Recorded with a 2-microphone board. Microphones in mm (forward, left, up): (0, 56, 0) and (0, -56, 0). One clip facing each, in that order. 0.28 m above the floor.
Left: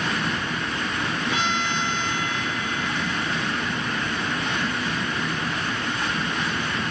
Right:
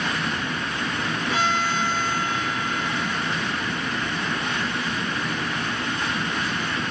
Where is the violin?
40° right (ahead or behind), 2.5 m.